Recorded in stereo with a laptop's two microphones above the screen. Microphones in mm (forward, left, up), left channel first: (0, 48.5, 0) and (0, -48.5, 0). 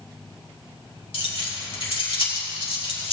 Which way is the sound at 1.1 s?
70° left (ahead or behind).